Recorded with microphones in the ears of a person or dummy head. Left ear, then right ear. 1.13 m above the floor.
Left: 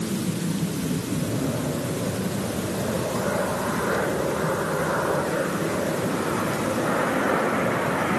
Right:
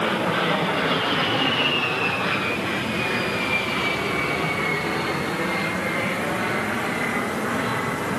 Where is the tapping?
I don't hear tapping.